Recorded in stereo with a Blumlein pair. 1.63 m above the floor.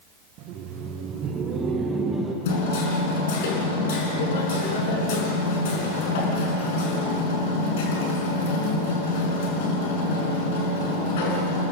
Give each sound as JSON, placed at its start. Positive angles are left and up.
{"t": 0.4, "sound": "laughter", "azimuth_deg": -40, "distance_m": 1.9}
{"t": 2.5, "sound": "hammering", "azimuth_deg": 55, "distance_m": 5.5}